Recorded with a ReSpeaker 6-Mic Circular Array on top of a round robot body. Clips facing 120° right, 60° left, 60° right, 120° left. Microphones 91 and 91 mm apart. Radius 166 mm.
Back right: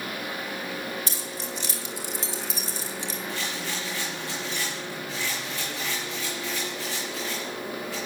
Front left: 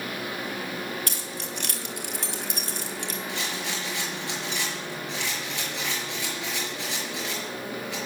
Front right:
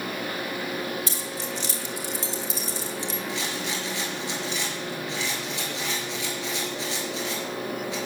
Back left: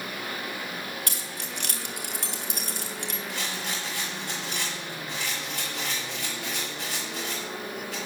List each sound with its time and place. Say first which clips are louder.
1.1 s keys jangling: even, front right 5 dB; 90° left, 1.4 m
3.3 s a rattle: even, front right 3 dB; 75° left, 5 m